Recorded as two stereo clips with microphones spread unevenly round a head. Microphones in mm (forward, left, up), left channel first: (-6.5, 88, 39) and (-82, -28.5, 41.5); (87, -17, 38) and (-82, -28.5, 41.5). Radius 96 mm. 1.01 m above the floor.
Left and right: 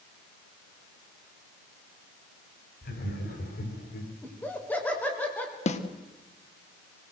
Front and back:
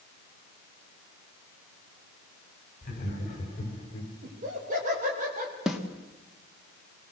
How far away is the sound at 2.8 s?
About 5.5 m.